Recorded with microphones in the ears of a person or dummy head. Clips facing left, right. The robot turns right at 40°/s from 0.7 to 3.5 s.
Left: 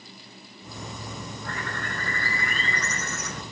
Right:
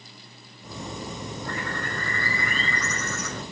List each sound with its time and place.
1.4 s a bird: 150° right, 6 m; by 3.4 s 70° right, 6 m